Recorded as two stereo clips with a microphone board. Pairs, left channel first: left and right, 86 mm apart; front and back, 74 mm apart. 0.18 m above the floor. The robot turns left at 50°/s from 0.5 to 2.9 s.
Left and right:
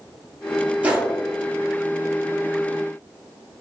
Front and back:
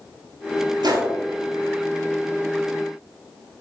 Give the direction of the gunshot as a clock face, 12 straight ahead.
5 o'clock.